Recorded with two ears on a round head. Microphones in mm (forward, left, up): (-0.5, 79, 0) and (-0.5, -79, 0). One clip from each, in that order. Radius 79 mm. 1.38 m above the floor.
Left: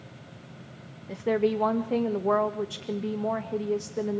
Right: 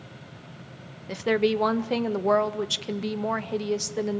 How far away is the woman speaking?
About 1.6 m.